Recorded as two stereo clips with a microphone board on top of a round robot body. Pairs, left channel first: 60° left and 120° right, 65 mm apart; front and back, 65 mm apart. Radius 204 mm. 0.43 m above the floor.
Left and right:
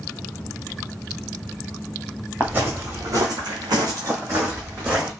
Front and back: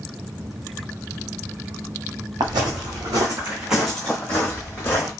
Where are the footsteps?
170° left, 1.1 m; by 5.1 s 55° right, 1.7 m.